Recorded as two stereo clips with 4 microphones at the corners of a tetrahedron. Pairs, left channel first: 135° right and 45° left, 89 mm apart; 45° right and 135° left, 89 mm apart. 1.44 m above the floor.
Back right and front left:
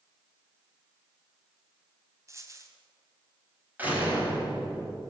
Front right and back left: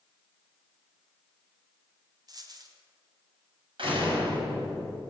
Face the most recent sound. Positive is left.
turn(degrees=115)